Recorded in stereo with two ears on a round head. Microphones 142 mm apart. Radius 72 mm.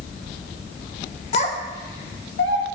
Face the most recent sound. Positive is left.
turn(degrees=85)